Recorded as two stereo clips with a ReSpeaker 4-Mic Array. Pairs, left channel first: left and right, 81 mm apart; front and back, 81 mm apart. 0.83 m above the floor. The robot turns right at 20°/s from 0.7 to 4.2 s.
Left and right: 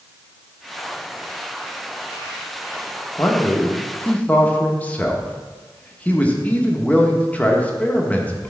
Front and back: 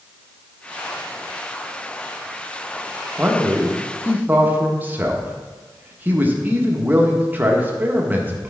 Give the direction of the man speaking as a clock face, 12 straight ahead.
8 o'clock.